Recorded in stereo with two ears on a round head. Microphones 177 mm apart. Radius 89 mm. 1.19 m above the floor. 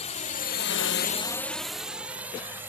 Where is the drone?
35° left (ahead or behind); by 2.7 s 10° right (ahead or behind).